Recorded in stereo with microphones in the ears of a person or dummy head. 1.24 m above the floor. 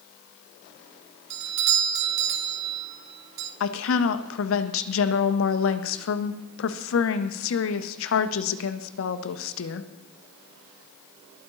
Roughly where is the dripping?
I don't hear dripping.